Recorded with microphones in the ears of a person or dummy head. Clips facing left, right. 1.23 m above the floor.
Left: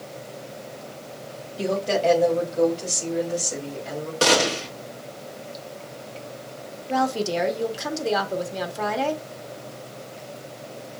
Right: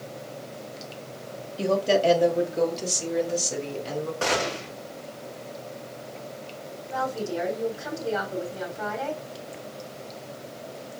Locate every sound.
1.6 s a woman speaking: centre (ahead or behind), 1.1 m; by 4.1 s 40° right (ahead or behind), 2 m
4.2 s a gunshot: 50° left (ahead or behind), 1.2 m
6.9 s a woman speaking: 85° left, 1.2 m